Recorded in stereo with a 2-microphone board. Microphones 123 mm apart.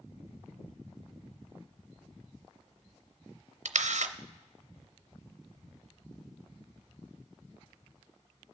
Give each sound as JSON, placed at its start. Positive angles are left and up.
{"t": 3.6, "sound": "a camera shutter", "side_deg": -75, "distance_m": 0.5}